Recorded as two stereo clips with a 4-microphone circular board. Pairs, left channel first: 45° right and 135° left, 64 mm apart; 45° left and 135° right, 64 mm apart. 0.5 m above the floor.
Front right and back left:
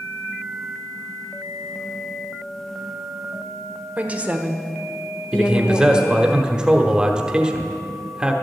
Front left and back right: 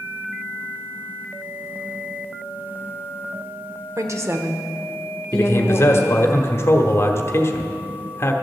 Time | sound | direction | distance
4.0 | a woman speaking | 160° right | 1.3 m
5.3 | a man speaking | 65° left | 1.1 m